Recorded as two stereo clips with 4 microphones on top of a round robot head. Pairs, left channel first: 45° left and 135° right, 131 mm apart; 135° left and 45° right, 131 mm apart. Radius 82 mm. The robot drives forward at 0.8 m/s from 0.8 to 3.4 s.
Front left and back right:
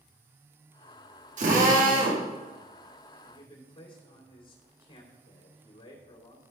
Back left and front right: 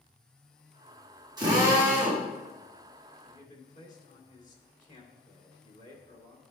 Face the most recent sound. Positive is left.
turn(degrees=100)